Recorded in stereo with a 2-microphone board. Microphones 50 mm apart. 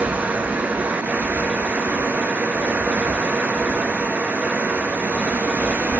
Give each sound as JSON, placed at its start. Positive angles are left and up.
{"t": 0.0, "sound": "running water", "side_deg": -35, "distance_m": 1.3}